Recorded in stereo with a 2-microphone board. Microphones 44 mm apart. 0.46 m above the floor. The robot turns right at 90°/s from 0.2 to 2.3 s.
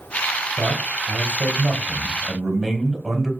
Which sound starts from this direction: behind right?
A man speaking, at 0.6 s.